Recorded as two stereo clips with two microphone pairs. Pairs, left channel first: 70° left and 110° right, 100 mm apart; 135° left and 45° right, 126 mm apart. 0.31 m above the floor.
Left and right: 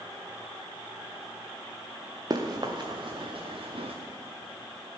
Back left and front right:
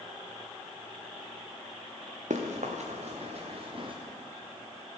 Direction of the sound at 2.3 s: 60° right.